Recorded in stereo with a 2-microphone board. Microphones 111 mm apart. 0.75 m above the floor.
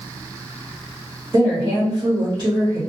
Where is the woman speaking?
30° right (ahead or behind), 1.4 m.